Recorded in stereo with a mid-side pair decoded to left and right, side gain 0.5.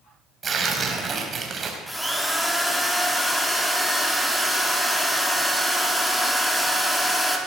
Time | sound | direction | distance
0.4 | tearing paper | 40° right | 4 m
1.9 | a drill | 5° left | 3.5 m